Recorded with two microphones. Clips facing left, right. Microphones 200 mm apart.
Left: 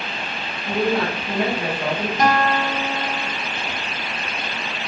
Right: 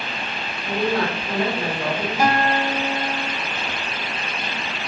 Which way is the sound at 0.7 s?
20° left (ahead or behind).